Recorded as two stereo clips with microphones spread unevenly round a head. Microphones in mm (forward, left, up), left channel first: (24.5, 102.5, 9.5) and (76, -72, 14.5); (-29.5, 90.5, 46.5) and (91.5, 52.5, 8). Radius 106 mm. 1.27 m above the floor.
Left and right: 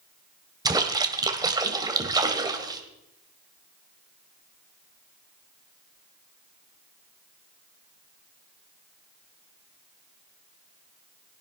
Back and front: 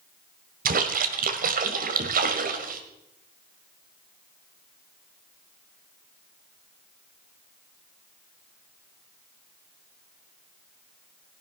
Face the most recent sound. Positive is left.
turn(degrees=-5)